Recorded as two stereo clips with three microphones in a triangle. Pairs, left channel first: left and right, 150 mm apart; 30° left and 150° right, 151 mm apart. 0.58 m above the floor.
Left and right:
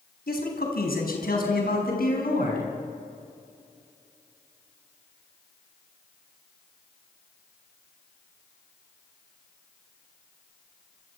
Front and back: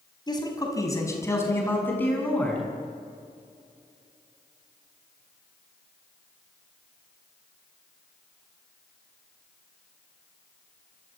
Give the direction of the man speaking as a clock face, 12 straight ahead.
9 o'clock.